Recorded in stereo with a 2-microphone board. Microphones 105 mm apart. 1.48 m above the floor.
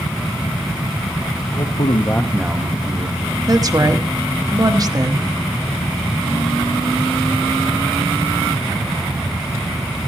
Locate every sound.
1.5 s a man speaking: 80° left, 1.1 m; by 3.2 s 40° right (ahead or behind), 1.8 m
3.5 s a woman speaking: 35° right (ahead or behind), 0.9 m